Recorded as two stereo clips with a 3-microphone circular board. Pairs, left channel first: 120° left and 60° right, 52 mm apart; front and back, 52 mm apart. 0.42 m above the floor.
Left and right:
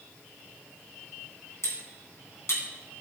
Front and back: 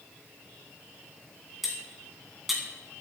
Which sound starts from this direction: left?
Cutlery clinking, at 1.6 s.